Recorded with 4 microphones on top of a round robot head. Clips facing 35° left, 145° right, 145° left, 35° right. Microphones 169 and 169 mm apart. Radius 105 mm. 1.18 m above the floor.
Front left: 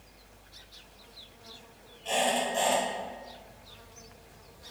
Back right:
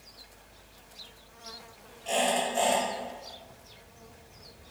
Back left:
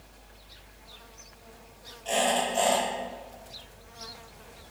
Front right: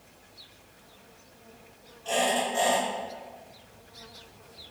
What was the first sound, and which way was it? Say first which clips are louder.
A squeak: back right 1 dB, even; 80° left.